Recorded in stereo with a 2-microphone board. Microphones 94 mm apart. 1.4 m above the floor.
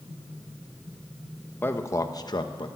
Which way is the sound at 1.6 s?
20° left (ahead or behind).